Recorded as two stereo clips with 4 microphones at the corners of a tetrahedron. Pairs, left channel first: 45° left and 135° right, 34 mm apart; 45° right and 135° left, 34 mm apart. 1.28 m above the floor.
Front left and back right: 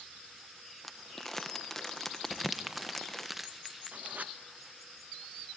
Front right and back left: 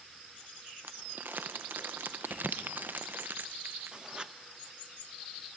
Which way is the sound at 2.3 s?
140° left.